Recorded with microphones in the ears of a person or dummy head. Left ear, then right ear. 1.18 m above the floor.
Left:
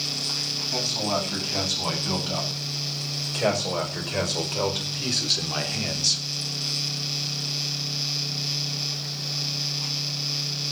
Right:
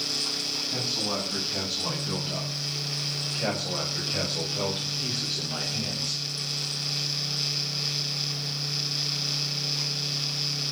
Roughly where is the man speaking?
Left.